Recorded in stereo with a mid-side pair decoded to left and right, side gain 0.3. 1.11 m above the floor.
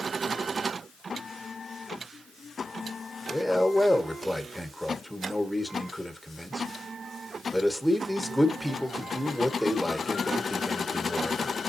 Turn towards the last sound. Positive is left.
turn(degrees=0)